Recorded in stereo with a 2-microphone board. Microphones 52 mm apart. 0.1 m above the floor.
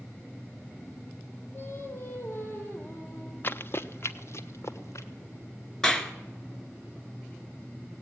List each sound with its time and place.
1.5 s singing: 40° left (ahead or behind), 4 m
3.4 s running footsteps: 40° left (ahead or behind), 0.6 m; by 5.1 s 60° left (ahead or behind), 1.9 m
5.8 s a clap: 10° left (ahead or behind), 1.2 m